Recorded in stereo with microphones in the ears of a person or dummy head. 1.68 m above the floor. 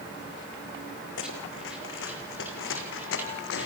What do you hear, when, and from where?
1.2 s running footsteps: 70° left (ahead or behind), 5.5 m; by 3.7 s 65° left (ahead or behind), 4.5 m